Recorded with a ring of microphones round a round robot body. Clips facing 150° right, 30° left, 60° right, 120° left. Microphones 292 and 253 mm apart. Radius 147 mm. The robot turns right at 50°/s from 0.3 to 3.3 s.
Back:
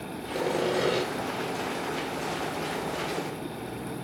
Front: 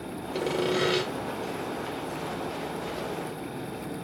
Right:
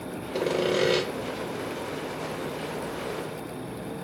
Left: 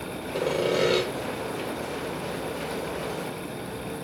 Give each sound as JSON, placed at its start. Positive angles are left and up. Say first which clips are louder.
{"t": 0.3, "sound": "sawing", "louder": "even, even", "azimuth_deg": -35, "distance_m": 1.4}